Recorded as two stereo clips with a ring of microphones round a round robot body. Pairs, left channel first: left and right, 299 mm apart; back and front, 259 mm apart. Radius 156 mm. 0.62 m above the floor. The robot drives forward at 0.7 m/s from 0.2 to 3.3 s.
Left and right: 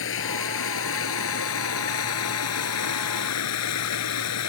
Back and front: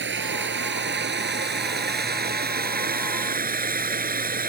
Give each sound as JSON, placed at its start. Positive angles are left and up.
{"t": 0.0, "sound": "running water", "azimuth_deg": 45}